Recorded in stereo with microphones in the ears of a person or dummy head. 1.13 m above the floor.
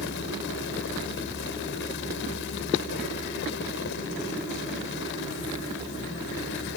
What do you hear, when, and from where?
0.0 s a fan: 65° left (ahead or behind)